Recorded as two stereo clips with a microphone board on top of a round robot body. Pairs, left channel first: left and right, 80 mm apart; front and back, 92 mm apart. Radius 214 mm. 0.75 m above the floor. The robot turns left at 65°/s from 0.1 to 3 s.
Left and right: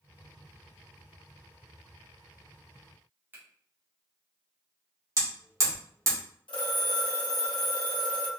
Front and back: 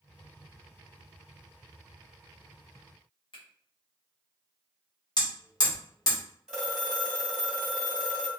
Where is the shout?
No shout in this recording.